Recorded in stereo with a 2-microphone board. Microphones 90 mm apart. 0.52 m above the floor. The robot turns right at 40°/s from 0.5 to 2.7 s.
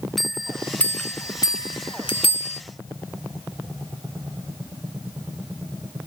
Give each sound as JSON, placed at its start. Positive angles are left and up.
{"t": 0.2, "sound": "a bell", "side_deg": 5, "distance_m": 0.8}